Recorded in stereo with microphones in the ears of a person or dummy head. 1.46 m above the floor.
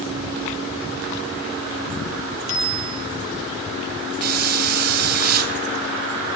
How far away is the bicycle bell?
About 6 m.